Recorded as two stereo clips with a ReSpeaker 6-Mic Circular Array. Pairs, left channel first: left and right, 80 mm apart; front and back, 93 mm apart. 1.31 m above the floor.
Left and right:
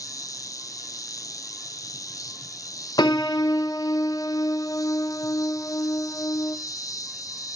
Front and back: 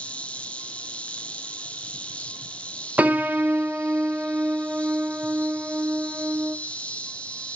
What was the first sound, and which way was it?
An insect, 70° left.